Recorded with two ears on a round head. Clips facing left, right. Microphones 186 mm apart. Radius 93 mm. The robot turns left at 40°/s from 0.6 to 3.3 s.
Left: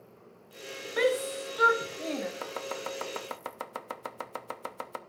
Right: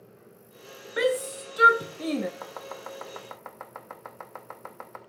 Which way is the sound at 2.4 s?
30° left (ahead or behind).